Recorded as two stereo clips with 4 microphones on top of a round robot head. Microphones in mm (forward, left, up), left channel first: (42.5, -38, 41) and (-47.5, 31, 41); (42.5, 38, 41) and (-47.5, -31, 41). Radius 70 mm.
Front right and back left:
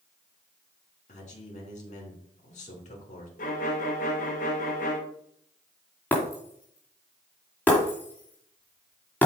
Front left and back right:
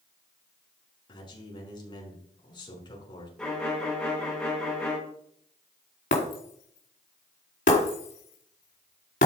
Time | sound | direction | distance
1.1 | a man speaking | 15° right | 5 m
3.4 | a violin | 45° right | 2.5 m
6.1 | breaking glass | 40° left | 2.5 m